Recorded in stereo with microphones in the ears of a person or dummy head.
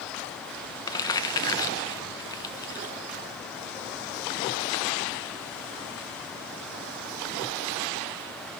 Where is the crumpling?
20° left (ahead or behind), 1.4 m.